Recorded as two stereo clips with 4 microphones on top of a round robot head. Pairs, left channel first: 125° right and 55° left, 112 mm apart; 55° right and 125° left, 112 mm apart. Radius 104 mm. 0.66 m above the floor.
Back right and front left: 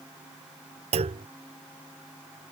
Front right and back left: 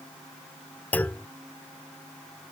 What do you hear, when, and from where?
0.9 s a clunk: 20° left